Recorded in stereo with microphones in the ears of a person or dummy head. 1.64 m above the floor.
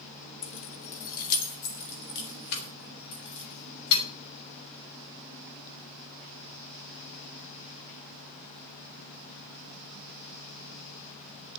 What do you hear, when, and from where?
0.4 s keys jangling: 30° left (ahead or behind), 1.3 m; by 4.0 s 60° left (ahead or behind), 5.5 m